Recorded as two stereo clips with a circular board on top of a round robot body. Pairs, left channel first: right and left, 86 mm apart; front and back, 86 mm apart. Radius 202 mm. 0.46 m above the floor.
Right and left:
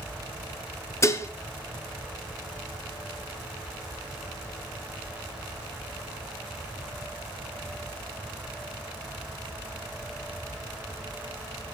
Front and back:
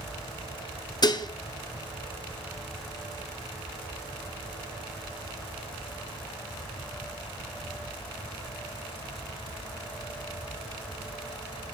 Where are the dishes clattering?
35° right, 1.0 m.